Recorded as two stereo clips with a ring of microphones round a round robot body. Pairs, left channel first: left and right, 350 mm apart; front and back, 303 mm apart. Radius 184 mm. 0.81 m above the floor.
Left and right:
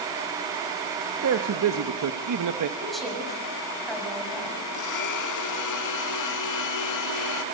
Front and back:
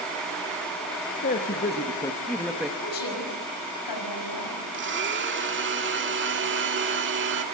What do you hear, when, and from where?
1.2 s a man speaking: 55° right, 1.4 m; by 2.7 s 95° right, 1.3 m
2.8 s a woman speaking: straight ahead, 6.5 m
4.7 s a blender: 125° left, 1.6 m